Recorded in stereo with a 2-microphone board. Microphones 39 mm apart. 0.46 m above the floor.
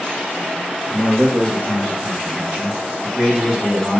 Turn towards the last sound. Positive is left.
turn(degrees=-15)  # may be behind; listen again after turning